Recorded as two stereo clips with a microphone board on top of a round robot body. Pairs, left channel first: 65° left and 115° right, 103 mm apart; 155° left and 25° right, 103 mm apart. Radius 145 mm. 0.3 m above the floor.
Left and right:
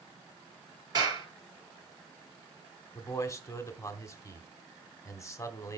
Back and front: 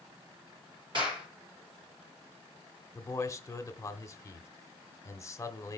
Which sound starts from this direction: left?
A man speaking, at 3.0 s.